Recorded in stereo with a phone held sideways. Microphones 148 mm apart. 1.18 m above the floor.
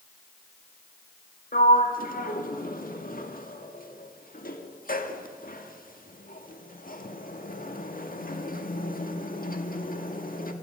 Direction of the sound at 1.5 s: 75° left (ahead or behind).